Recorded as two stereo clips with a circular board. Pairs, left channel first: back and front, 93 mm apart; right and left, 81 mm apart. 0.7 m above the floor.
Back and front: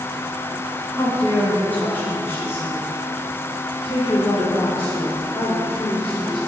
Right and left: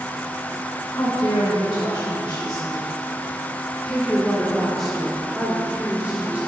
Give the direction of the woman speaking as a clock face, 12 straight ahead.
3 o'clock.